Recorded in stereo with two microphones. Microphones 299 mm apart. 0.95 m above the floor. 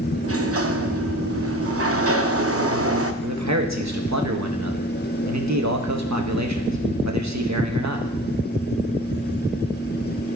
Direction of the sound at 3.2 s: 65° right (ahead or behind).